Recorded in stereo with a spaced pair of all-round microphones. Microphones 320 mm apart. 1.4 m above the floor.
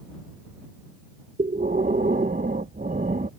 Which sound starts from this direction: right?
Breathing, at 1.4 s.